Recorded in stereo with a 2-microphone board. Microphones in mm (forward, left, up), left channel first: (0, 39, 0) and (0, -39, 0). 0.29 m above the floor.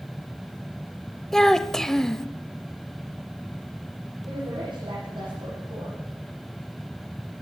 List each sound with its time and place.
1.3 s a child speaking: 5° left (ahead or behind), 0.6 m
4.3 s a woman speaking: 75° right (ahead or behind), 9.5 m